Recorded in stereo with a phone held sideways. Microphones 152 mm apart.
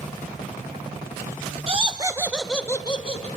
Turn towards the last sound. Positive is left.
turn(degrees=45)  # may be behind; listen again after turning